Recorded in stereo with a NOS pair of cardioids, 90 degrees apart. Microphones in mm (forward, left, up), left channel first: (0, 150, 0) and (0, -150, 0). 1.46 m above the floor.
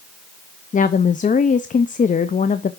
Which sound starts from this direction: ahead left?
A woman speaking, at 0.7 s.